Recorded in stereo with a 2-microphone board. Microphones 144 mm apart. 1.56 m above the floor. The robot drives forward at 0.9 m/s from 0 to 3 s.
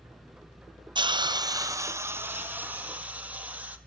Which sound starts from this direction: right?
A hiss, at 0.9 s.